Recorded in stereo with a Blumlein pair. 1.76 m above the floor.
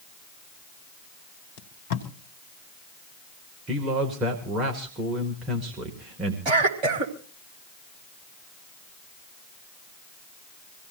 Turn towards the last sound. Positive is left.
turn(degrees=-35)